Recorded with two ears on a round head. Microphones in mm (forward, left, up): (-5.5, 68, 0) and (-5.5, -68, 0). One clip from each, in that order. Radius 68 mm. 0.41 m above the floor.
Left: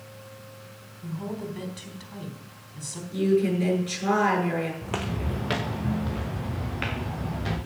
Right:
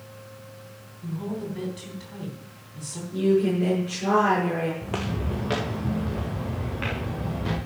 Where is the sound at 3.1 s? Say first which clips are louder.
Right 1 dB; 65° left (ahead or behind), 7.5 m.